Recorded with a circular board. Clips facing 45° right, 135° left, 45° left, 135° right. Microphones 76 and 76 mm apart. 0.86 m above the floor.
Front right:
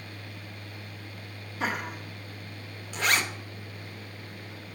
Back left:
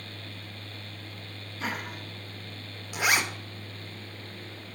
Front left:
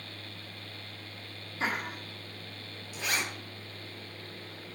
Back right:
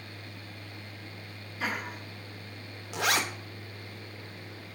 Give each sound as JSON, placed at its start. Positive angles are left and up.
{"t": 1.6, "sound": "laughter", "azimuth_deg": -20, "distance_m": 1.5}
{"t": 2.9, "sound": "a zipper", "azimuth_deg": -145, "distance_m": 0.6}